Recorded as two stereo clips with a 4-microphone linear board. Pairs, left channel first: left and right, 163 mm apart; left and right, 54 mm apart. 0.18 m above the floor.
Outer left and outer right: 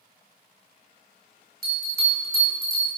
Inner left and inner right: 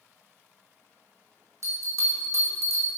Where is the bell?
60° right (ahead or behind), 3 m.